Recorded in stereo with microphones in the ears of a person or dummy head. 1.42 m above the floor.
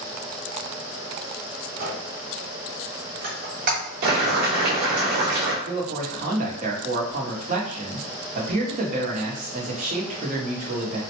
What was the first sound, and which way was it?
A squeak, 40° right (ahead or behind).